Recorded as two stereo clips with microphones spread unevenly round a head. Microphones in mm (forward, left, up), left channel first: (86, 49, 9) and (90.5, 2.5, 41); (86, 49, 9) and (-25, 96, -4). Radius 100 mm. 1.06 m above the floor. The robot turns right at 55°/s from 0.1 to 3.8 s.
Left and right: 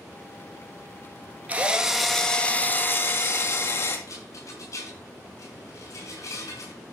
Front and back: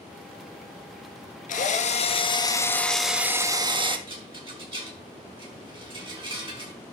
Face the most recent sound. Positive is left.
turn(degrees=110)